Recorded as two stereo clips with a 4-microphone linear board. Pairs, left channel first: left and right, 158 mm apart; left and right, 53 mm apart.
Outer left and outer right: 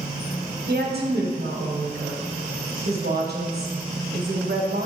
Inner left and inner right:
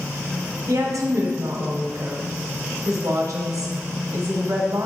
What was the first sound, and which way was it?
A woman speaking, 85° right.